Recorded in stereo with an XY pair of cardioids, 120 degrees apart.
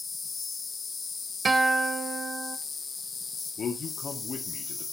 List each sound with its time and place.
0.0 s an insect: 20° left, 1.3 m
1.4 s a guitar: 30° right, 0.9 m
3.6 s a man speaking: 35° left, 2.5 m